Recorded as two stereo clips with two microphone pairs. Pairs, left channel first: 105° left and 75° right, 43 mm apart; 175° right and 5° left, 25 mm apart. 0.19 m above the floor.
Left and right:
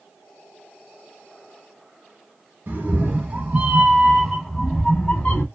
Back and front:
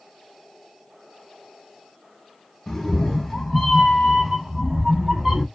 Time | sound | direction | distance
2.7 | a cat meowing | 110° right | 1.0 m